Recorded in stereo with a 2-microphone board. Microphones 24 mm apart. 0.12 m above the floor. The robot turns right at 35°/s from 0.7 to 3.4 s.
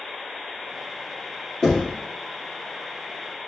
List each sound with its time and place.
1.6 s knocking: 35° left (ahead or behind), 1.4 m; by 1.9 s 40° left (ahead or behind), 1.4 m